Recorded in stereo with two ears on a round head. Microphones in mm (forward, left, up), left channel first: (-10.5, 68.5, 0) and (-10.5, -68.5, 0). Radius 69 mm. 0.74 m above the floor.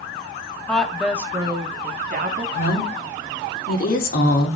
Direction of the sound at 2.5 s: 60° left (ahead or behind).